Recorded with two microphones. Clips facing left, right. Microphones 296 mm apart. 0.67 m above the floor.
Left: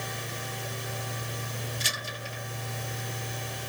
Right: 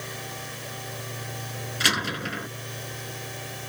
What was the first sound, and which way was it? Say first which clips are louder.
A door slam: right 10 dB; 85° right.